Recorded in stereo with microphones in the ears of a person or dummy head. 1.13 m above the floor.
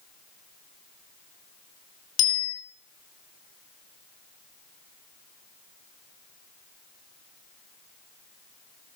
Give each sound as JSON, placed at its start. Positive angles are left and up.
{"t": 2.2, "sound": "a bicycle bell", "side_deg": 85, "distance_m": 3.5}